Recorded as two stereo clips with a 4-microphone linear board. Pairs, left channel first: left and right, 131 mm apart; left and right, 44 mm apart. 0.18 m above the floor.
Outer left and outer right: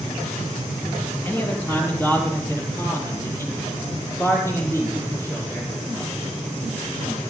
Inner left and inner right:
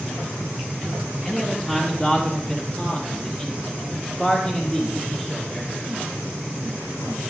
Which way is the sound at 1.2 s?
20° left (ahead or behind).